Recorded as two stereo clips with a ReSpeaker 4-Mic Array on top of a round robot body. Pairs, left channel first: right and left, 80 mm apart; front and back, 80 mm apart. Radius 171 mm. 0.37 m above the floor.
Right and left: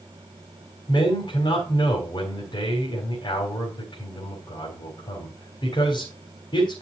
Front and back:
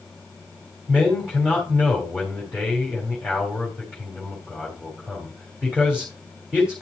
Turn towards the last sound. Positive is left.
turn(degrees=-105)